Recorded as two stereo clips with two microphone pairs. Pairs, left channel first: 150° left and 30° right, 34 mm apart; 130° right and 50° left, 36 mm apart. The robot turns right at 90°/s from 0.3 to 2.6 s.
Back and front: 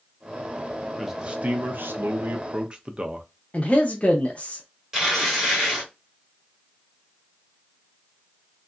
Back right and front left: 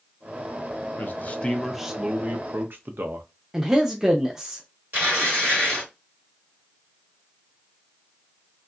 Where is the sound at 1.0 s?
115° right, 0.6 m; by 3.3 s 30° left, 0.6 m.